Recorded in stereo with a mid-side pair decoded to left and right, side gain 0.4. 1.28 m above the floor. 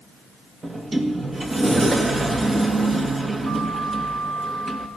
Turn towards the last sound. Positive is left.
turn(degrees=-30)